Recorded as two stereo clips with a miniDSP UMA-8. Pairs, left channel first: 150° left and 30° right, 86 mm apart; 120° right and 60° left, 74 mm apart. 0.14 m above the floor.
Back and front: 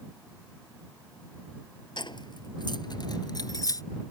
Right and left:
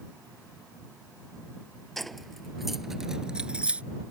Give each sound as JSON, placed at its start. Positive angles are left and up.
{"t": 2.0, "sound": "keys jangling", "azimuth_deg": 155}